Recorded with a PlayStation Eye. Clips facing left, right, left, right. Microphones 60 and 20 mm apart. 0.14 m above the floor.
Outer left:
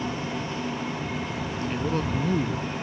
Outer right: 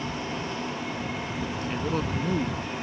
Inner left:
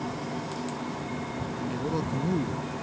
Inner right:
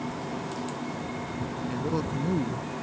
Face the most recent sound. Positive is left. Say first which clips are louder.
# outer left 2 dB, inner right 1 dB
turn(degrees=0)  # may be behind; listen again after turning